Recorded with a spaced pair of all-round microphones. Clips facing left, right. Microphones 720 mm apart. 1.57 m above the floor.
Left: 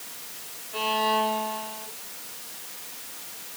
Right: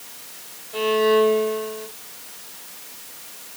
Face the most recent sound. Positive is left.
turn(degrees=-50)  # may be behind; listen again after turning